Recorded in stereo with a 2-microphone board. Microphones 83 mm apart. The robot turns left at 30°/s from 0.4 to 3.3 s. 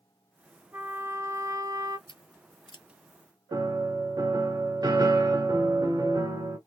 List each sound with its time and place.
0.7 s a trumpet: 25° right, 0.8 m; by 2.0 s 65° right, 0.8 m
2.1 s scissors: 85° left, 0.7 m; by 2.9 s 75° left (ahead or behind), 0.7 m
3.5 s a piano: 50° right (ahead or behind), 1.1 m